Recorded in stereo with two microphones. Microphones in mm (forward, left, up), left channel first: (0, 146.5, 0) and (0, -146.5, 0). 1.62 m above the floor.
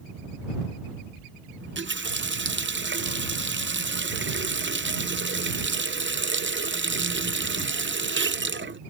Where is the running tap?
40° right (ahead or behind).